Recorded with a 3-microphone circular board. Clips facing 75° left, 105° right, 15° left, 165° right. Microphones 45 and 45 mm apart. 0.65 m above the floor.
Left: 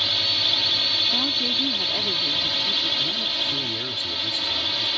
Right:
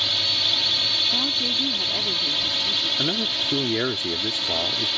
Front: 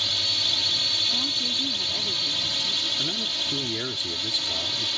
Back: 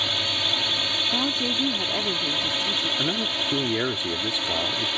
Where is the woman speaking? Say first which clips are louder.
Even, back 4 dB; 160° left.